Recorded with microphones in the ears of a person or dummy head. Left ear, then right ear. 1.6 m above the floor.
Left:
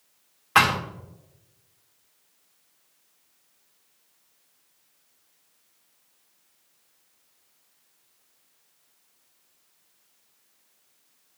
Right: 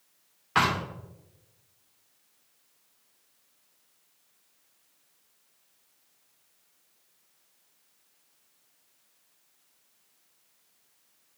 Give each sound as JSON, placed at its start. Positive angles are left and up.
{"t": 0.6, "sound": "a thud", "side_deg": 25, "distance_m": 2.0}